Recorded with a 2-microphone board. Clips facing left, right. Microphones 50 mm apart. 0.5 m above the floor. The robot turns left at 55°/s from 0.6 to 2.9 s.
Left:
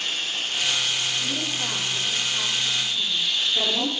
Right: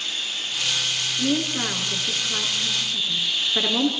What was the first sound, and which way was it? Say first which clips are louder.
Running water: left 2 dB; 125° left.